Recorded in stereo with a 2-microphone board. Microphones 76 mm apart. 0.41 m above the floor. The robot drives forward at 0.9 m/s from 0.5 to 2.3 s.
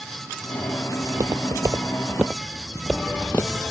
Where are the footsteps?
65° right (ahead or behind); by 3.6 s 40° left (ahead or behind).